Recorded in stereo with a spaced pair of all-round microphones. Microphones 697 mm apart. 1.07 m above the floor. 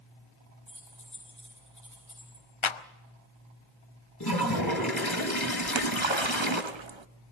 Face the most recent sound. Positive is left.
turn(degrees=-45)  # may be behind; listen again after turning